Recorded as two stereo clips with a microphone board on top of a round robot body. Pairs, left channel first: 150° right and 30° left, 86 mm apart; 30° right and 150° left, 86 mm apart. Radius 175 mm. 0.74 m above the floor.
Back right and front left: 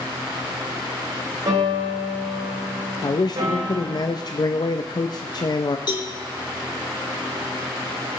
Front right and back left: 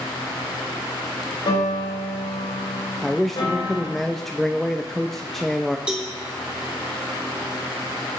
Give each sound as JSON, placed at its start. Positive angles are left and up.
{"t": 1.5, "sound": "a piano", "azimuth_deg": -5, "distance_m": 3.5}
{"t": 3.0, "sound": "a man speaking", "azimuth_deg": -120, "distance_m": 0.7}
{"t": 5.9, "sound": "a cowbell", "azimuth_deg": -135, "distance_m": 2.5}